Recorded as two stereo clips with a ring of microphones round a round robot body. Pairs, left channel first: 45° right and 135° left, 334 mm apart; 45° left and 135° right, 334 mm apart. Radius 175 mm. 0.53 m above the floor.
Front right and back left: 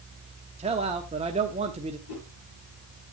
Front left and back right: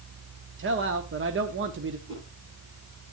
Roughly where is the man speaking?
Behind.